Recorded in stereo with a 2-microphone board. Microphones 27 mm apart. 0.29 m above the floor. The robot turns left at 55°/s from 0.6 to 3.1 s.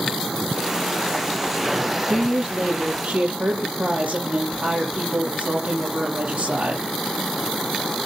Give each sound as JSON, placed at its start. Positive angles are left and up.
{"t": 2.1, "sound": "a woman speaking", "azimuth_deg": -10, "distance_m": 6.5}